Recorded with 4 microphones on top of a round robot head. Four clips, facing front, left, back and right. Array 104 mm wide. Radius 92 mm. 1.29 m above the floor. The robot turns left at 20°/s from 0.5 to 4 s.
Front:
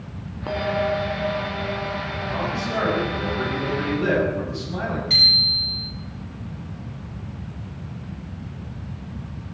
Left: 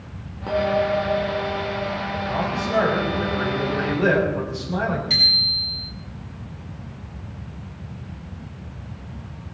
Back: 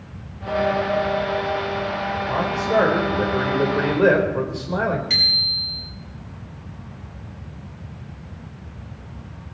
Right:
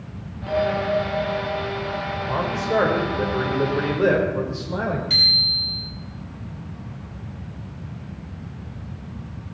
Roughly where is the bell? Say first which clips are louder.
Left 1 dB, back 2 dB; ahead.